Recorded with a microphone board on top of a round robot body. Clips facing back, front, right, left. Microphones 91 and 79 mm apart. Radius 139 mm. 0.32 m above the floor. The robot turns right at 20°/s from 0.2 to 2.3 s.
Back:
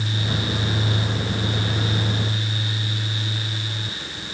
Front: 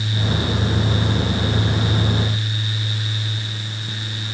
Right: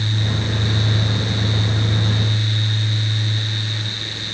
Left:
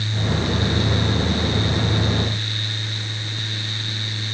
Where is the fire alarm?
No fire alarm in this recording.